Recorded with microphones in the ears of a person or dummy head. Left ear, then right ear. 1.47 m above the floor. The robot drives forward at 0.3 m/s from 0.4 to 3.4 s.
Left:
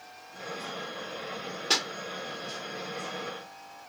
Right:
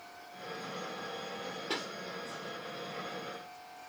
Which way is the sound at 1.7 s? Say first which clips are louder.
Left 11 dB; 45° left (ahead or behind).